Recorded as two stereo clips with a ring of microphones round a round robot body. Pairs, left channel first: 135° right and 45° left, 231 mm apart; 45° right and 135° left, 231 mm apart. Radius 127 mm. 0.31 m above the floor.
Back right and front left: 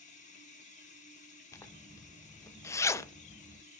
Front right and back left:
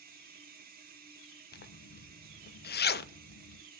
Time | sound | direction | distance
0.0 | running water | 175° left | 1.6 m
1.5 | a zipper | 65° right | 0.5 m